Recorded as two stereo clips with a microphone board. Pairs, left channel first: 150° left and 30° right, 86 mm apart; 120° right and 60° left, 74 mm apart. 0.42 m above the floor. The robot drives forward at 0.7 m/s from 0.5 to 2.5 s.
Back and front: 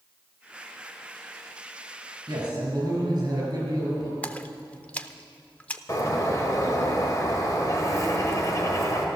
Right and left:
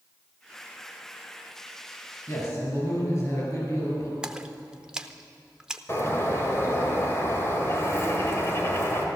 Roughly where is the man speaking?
Right.